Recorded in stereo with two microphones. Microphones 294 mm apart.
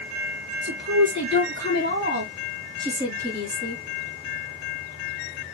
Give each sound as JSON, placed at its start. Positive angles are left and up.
{"t": 0.6, "sound": "a woman speaking", "side_deg": -40, "distance_m": 2.5}